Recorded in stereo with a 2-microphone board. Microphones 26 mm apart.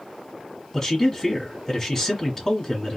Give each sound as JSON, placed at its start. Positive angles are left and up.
{"t": 0.7, "sound": "a man speaking", "side_deg": 20, "distance_m": 1.8}